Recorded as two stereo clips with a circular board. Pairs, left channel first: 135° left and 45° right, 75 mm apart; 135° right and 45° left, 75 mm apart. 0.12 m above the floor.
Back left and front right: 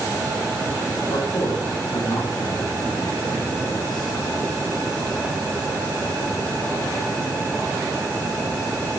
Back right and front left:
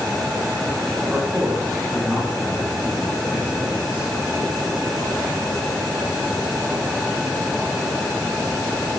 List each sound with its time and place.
1.1 s a man speaking: 120° left, 5.5 m